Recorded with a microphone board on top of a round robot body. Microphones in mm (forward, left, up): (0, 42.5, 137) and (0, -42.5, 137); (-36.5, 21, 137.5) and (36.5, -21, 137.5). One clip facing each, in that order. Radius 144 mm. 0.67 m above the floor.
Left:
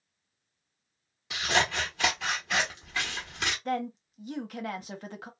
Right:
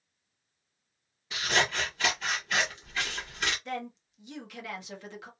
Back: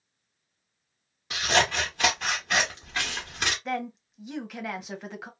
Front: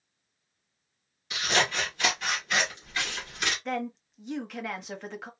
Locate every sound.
1.3 s scissors: 105° left, 0.7 m
3.6 s a woman speaking: 65° left, 1.0 m